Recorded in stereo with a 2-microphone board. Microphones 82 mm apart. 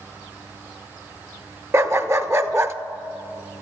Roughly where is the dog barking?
Right.